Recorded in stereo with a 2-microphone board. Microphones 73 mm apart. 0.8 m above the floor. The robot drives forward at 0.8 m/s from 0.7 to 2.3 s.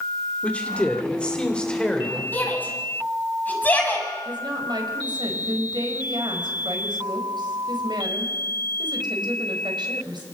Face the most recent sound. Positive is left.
turn(degrees=-75)  # may be behind; listen again after turning